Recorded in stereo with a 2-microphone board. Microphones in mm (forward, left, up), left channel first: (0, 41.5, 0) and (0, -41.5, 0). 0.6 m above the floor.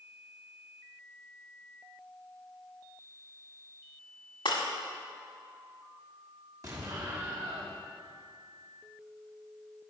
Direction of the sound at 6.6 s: 40° right (ahead or behind).